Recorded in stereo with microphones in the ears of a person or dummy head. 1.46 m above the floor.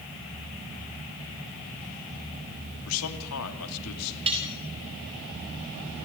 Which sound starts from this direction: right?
Cutlery clinking, at 4.3 s.